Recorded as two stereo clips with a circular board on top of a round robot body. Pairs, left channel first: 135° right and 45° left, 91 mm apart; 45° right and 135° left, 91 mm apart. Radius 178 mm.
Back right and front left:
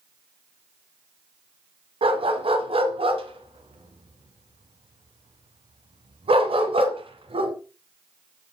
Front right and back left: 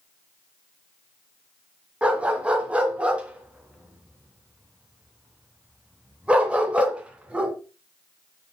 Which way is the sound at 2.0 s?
60° left.